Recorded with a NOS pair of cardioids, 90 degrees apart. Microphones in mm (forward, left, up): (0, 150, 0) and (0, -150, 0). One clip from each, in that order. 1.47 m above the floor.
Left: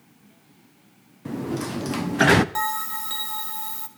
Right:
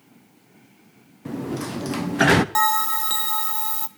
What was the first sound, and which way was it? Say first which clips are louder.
A sliding door: even; 5° right.